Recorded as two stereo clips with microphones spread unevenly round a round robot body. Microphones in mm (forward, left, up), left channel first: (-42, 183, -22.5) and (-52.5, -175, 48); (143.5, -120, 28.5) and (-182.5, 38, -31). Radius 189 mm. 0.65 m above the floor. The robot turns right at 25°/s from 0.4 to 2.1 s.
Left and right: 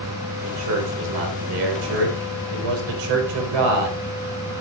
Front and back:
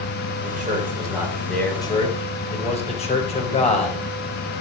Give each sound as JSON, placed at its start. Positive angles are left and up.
{"t": 0.4, "sound": "a man speaking", "azimuth_deg": -145, "distance_m": 4.0}